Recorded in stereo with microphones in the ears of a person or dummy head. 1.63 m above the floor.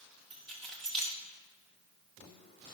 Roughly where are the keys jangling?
Centre.